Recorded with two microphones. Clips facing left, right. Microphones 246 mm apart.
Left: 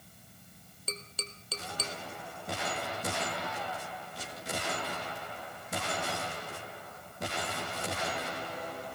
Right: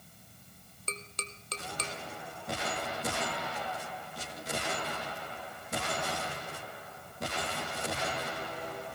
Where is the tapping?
5° left (ahead or behind), 0.8 m.